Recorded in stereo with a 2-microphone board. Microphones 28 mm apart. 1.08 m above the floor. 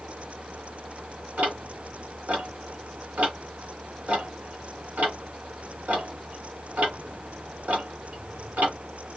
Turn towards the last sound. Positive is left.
turn(degrees=-70)  # may be behind; listen again after turning